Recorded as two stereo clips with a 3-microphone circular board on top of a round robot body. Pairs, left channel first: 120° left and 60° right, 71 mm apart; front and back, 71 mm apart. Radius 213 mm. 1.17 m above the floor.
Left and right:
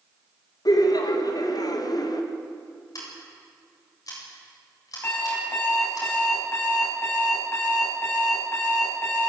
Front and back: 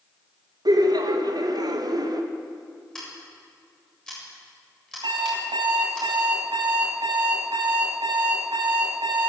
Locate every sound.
0.7 s laughter: 155° left, 2.5 m
3.0 s scissors: 80° left, 7.5 m
5.0 s an alarm clock: 175° right, 6 m